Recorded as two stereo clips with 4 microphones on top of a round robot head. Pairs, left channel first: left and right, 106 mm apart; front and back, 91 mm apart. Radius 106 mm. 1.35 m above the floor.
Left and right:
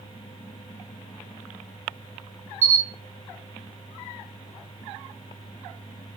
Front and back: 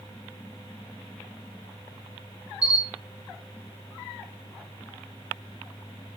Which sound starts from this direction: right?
A camera shutter, at 2.6 s.